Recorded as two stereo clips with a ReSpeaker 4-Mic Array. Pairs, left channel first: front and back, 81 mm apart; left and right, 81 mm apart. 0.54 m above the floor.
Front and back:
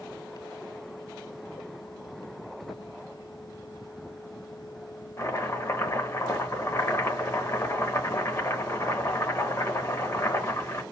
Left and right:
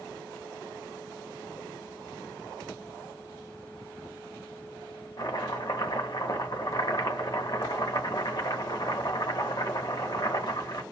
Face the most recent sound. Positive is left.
turn(degrees=55)